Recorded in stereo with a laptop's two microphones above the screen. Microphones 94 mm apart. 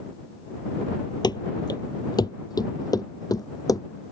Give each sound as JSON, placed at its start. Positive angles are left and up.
{"t": 1.2, "sound": "running footsteps", "side_deg": 50}